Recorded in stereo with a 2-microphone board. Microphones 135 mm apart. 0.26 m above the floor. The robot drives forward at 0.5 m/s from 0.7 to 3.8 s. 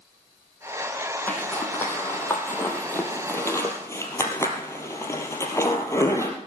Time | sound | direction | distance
1.3 | a zipper | 15° left (ahead or behind) | 3.5 m